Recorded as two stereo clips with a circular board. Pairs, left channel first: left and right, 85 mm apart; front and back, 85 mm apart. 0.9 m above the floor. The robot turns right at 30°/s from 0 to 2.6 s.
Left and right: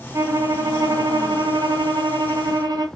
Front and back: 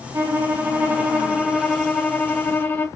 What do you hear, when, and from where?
0.1 s a violin: 135° right, 0.7 m; by 2.9 s 65° right, 0.7 m